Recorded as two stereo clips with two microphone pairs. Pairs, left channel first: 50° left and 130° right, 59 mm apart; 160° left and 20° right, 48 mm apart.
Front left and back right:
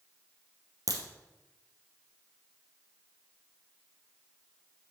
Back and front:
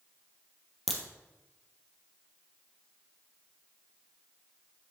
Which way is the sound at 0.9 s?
110° right.